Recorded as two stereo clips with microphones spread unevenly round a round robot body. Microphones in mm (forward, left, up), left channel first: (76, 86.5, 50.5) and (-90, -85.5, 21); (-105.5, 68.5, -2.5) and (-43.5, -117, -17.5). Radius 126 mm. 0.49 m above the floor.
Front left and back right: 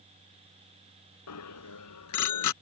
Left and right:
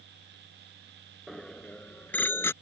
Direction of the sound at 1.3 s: 20° left.